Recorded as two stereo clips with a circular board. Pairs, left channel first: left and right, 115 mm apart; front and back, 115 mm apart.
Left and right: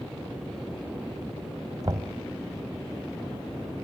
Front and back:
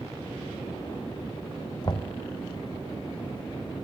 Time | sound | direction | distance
1.8 | knocking | 40° right | 1.4 m